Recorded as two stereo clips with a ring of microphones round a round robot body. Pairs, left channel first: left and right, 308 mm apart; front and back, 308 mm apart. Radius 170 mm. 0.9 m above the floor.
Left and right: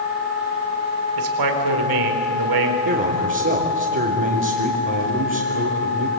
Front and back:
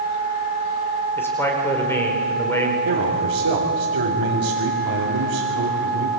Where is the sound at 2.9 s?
140° right, 3.5 m.